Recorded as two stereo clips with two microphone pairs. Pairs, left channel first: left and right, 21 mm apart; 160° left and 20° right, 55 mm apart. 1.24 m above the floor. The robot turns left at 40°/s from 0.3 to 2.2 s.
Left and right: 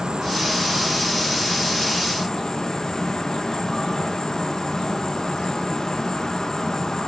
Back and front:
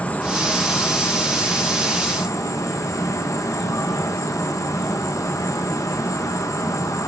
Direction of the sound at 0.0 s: 140° right.